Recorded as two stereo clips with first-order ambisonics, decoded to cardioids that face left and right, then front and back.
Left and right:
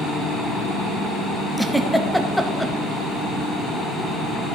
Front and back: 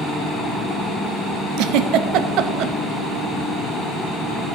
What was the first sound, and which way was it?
A giggle, 175° right.